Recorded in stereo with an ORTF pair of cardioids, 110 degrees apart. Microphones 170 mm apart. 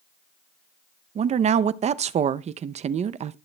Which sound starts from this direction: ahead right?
A woman speaking, at 1.1 s.